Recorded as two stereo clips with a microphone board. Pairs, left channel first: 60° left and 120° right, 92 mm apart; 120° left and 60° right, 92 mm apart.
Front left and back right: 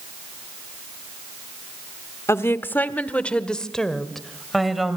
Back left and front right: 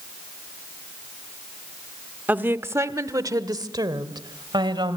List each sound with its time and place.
2.3 s a woman speaking: 10° left, 1.2 m; by 5.0 s 30° right, 2.5 m